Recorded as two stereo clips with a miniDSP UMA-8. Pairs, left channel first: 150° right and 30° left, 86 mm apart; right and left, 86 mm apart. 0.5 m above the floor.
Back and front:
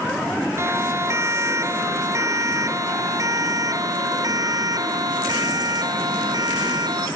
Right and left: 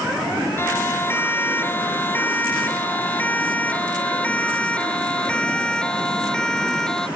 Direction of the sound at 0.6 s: 30° right.